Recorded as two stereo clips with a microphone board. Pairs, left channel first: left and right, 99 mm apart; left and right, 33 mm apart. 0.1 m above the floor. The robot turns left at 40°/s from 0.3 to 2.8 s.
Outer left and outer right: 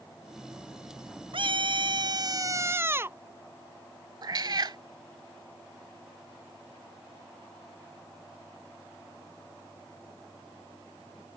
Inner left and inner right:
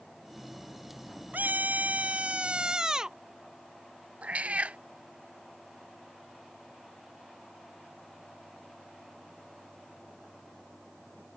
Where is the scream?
95° right; by 3.2 s 150° right.